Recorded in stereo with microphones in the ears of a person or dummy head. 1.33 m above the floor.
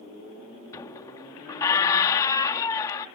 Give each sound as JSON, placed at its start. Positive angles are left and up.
{"t": 0.7, "sound": "a squeak", "side_deg": 15}